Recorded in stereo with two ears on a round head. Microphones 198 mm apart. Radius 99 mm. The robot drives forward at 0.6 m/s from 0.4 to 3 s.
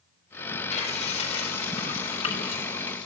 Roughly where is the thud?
No thud in this recording.